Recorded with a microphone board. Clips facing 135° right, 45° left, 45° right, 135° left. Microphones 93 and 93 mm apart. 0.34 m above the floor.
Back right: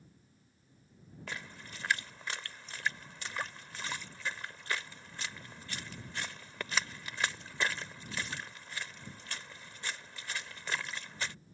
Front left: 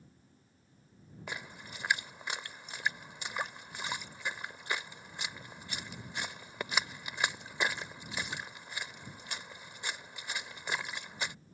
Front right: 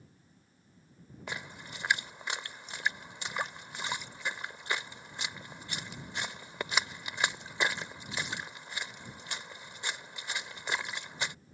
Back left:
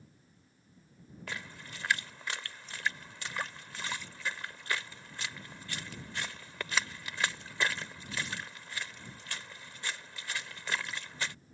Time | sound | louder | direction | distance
1.3 | a splash | front left 1 dB, front right 2 dB | 5° right | ?